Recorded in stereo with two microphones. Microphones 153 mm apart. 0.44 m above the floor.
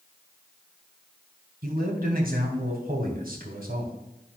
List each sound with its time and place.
1.6 s a man speaking: 70° right (ahead or behind), 2.5 m